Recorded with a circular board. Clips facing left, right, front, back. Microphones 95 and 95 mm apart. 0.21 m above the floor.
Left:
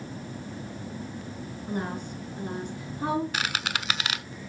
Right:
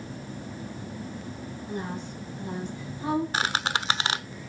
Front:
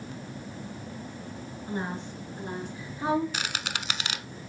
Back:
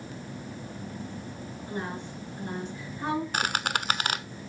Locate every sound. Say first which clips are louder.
1.7 s a woman speaking: left 3 dB, front 2 dB; 60° left, 3.5 m; by 3.2 s 85° left, 4 m
3.3 s a squeak: right 3 dB, back 5 dB; 145° right, 0.5 m